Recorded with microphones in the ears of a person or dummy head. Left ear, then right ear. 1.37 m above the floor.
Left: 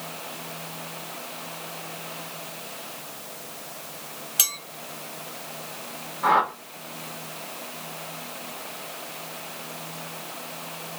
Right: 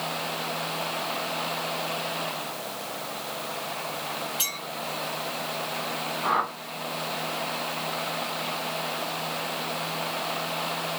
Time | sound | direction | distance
4.4 | a clink | 50° left (ahead or behind) | 1.2 m
6.2 | a whoosh | 55° left (ahead or behind) | 1.1 m